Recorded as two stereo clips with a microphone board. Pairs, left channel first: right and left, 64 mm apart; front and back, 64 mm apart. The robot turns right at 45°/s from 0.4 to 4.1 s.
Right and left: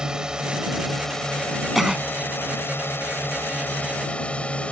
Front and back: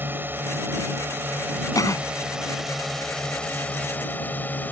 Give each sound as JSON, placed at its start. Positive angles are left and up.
{"t": 0.0, "sound": "a drone", "azimuth_deg": 160}
{"t": 1.8, "sound": "a cough", "azimuth_deg": 0}